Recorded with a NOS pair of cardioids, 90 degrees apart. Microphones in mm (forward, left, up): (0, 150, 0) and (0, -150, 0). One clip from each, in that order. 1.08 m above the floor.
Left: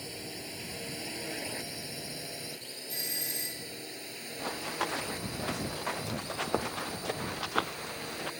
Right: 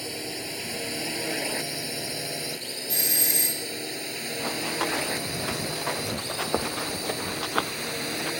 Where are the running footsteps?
20° right.